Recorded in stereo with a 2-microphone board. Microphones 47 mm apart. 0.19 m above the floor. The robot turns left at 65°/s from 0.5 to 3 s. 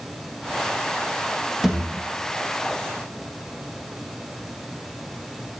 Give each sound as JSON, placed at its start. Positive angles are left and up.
{"t": 1.6, "sound": "a thud", "side_deg": -10, "distance_m": 2.0}